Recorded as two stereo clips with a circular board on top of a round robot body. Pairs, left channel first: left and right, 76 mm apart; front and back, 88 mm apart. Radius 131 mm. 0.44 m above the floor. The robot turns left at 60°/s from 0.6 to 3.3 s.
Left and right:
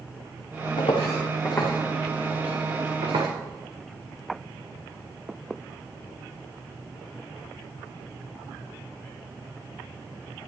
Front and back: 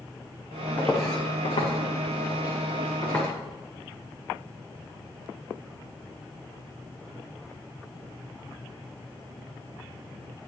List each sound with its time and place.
0.8 s footsteps: 70° left, 1.8 m; by 3.3 s 85° right, 4.5 m